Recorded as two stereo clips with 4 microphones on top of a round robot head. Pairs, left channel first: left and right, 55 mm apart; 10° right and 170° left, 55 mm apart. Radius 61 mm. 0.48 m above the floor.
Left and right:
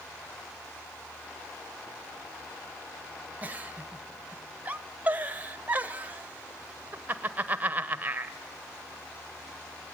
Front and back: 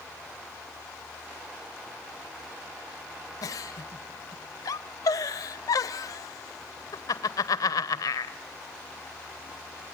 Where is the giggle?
25° right, 0.7 m.